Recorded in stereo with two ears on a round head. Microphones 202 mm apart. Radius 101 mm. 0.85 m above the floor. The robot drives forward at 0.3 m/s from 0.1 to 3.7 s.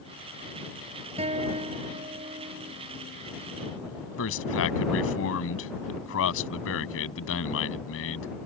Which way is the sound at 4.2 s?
70° left (ahead or behind).